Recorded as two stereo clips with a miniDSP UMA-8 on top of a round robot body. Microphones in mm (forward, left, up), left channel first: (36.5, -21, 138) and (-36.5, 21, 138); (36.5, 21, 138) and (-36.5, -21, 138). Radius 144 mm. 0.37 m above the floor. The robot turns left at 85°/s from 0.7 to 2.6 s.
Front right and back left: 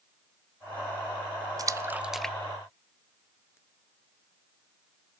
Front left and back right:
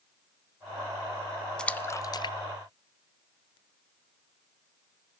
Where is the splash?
110° left, 0.5 m; by 3.6 s 25° left, 0.5 m.